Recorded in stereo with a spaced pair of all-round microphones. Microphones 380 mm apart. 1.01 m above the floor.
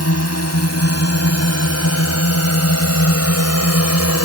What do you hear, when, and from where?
0.0 s a drone: 40° left (ahead or behind)